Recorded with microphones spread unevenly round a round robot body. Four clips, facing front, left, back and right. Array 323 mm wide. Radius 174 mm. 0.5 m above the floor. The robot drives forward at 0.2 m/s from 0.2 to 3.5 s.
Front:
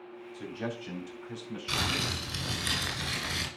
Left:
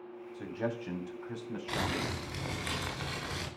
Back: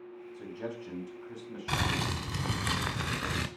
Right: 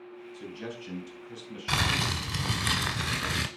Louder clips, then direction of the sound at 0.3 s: Left 5 dB, front 2 dB; 60° left.